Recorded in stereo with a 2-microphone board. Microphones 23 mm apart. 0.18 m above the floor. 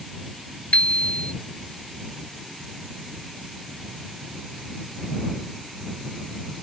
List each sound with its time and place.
0.7 s a bicycle bell: 65° left (ahead or behind)